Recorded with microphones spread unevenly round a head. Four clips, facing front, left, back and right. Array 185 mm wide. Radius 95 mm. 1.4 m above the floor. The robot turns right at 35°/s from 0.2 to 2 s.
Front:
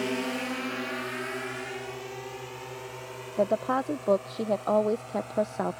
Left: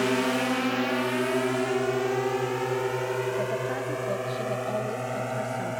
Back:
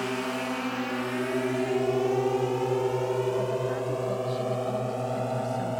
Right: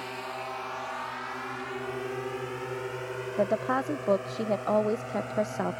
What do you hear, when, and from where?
0.0 s a drone: 75° left; by 5.8 s 155° left
3.4 s a woman speaking: 25° right